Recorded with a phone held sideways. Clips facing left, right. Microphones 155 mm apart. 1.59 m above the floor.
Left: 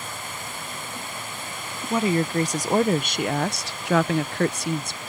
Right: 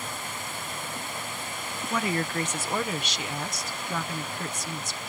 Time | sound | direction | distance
1.9 | a woman speaking | 25° left (ahead or behind) | ?